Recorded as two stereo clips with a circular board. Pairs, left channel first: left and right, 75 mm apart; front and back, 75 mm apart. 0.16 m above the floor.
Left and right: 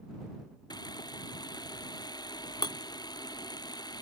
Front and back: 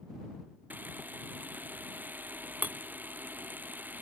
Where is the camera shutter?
110° left.